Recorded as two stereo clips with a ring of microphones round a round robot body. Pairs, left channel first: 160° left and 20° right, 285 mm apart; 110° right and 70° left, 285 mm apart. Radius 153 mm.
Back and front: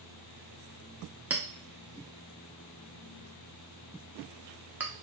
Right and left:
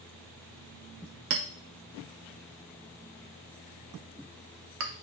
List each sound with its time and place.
1.3 s a clink: 60° left, 0.5 m